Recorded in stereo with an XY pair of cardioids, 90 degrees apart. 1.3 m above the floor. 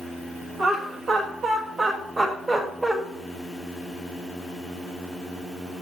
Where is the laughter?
65° right, 1.8 m; by 3.0 s 25° right, 2 m.